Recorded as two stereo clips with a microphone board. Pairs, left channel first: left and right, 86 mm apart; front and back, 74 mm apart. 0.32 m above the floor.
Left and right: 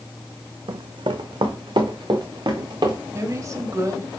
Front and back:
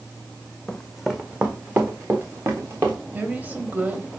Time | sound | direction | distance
0.7 | running footsteps | 80° right | 0.9 m
3.1 | a woman speaking | 125° right | 1.2 m